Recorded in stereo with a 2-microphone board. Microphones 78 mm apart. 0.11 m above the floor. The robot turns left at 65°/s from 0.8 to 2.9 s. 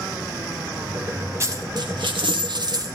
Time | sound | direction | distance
1.4 | a dropped coin | 35° right | 3 m